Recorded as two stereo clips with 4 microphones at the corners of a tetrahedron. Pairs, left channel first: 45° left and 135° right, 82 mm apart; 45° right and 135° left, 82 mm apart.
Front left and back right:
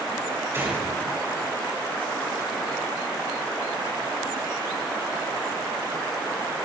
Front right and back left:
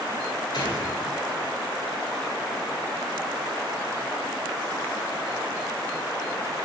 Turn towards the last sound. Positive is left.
turn(degrees=-80)